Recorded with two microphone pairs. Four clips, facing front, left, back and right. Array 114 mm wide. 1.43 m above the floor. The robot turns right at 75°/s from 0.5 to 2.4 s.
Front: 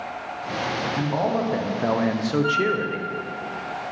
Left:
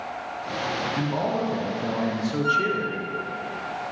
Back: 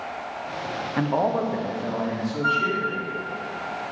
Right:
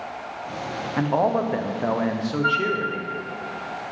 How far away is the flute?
About 0.8 m.